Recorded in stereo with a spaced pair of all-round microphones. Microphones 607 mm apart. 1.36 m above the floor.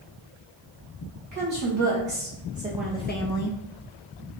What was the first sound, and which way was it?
A woman speaking, 35° right (ahead or behind).